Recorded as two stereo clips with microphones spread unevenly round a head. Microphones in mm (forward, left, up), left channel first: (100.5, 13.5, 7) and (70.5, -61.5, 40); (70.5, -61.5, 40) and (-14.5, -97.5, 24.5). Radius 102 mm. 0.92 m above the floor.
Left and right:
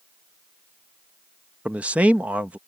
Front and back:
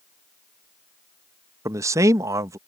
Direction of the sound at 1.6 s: 155° left.